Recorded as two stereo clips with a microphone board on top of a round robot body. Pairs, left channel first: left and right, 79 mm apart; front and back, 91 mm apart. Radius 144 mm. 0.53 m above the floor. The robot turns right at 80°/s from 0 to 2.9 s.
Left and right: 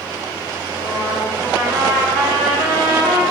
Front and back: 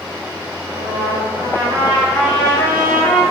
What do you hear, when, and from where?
0.7 s a trumpet: 140° left, 4 m; by 3.2 s 40° right, 4 m